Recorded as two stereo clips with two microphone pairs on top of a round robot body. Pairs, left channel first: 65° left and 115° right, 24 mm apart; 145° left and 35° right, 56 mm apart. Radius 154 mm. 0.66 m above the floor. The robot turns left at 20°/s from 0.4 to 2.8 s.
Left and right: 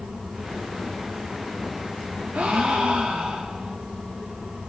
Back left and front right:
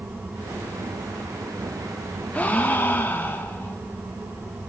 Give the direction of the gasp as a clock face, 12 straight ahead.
5 o'clock.